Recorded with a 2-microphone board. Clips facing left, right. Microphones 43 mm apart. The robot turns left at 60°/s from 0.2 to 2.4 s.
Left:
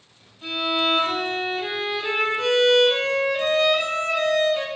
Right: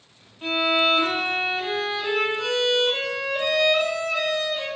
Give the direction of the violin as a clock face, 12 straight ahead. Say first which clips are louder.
Right 2 dB; 4 o'clock.